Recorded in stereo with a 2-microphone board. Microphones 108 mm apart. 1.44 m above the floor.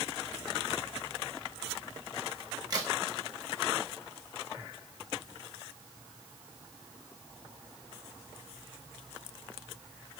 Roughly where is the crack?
Right.